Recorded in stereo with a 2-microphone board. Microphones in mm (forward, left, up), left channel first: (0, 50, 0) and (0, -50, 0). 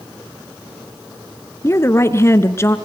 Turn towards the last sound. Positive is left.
turn(degrees=25)  # may be behind; listen again after turning